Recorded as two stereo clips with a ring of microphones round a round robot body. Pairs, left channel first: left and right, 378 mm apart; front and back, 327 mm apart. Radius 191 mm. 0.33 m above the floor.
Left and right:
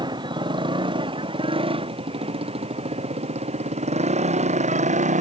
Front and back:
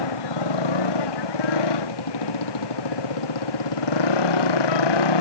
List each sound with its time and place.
0.0 s a motorcycle: 10° right; by 5.2 s 20° right